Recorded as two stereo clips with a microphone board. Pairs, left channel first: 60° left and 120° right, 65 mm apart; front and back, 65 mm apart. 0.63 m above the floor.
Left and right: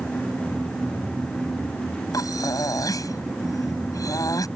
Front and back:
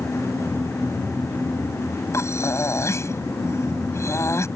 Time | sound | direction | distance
2.1 | breathing | 40° left | ?